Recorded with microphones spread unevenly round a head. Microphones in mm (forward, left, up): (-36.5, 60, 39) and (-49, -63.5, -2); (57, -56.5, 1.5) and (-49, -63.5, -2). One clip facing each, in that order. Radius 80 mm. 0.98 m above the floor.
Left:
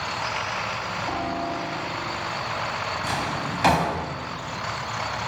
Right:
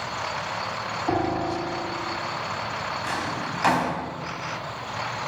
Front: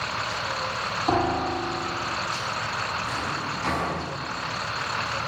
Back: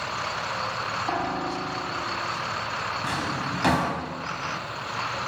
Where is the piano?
45° right, 1.8 m.